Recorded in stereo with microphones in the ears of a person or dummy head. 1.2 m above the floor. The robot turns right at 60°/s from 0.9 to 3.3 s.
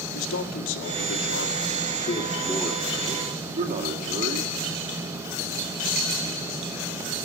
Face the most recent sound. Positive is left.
turn(degrees=-135)